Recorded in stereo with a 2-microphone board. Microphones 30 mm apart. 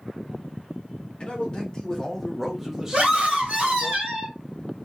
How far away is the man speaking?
About 1.1 m.